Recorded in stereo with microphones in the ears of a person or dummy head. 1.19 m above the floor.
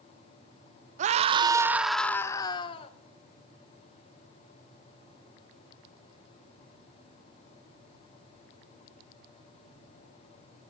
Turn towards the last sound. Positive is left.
turn(degrees=35)  # may be behind; listen again after turning